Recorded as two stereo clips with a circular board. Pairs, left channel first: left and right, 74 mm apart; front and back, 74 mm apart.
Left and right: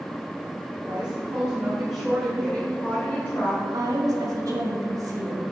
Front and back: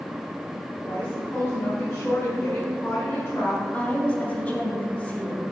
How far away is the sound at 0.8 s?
About 2 m.